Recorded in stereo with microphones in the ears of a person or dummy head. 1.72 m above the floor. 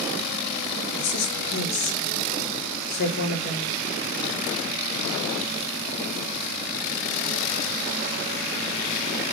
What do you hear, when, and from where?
1.0 s a woman speaking: 55° left (ahead or behind), 4.5 m